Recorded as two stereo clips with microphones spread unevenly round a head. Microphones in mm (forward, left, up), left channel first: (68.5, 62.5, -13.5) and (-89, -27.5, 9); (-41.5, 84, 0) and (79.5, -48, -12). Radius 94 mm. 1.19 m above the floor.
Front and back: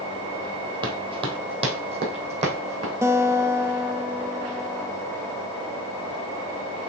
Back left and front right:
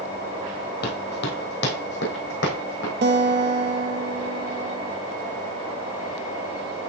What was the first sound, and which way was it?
Running footsteps, 150° left.